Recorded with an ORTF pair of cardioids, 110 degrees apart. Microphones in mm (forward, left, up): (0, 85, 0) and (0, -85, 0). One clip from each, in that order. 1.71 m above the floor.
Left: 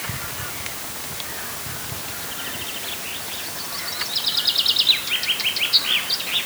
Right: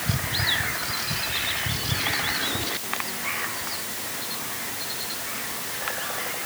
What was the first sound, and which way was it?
Only background noise.